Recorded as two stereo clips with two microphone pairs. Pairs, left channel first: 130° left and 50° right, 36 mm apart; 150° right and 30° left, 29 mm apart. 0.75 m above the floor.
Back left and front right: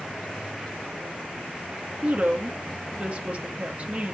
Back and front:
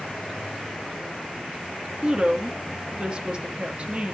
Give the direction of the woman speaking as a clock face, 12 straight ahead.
1 o'clock.